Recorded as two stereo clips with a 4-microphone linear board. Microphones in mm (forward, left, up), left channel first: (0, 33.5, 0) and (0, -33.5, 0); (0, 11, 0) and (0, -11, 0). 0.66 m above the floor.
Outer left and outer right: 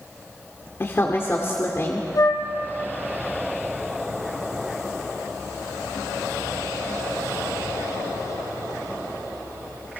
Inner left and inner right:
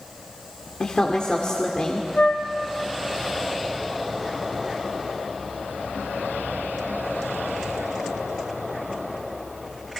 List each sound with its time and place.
0.8 s a woman speaking: 45° left (ahead or behind), 2 m
2.1 s a flute: 80° left, 2.5 m